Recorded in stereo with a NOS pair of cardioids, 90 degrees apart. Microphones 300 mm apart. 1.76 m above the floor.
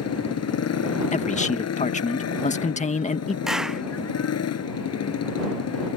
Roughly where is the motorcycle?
Ahead left.